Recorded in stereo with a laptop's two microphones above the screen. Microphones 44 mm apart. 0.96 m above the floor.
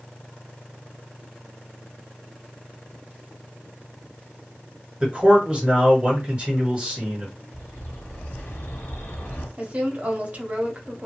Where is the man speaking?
15° right (ahead or behind), 1.4 m.